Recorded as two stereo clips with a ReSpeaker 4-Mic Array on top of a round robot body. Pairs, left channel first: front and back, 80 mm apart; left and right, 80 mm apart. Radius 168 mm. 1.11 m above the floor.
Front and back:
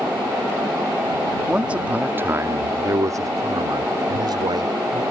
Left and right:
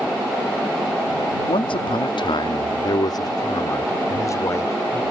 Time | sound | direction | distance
1.5 | a man speaking | 100° left | ?